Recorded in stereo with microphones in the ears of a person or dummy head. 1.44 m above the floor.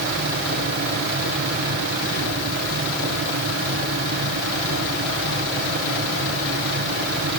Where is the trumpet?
No trumpet in this recording.